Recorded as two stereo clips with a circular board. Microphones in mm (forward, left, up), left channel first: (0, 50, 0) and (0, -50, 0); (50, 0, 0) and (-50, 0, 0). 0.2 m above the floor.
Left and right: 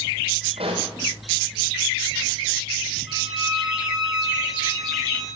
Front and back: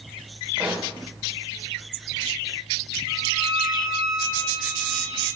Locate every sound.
0.6 s a pop: 105° right, 3.5 m
3.1 s a violin: 135° right, 3 m